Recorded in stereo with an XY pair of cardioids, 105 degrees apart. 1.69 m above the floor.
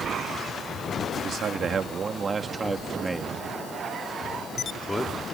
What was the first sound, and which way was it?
A man speaking, 60° right.